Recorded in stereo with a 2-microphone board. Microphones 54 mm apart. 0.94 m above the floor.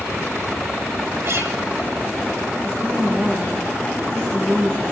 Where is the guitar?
80° right, 4.5 m.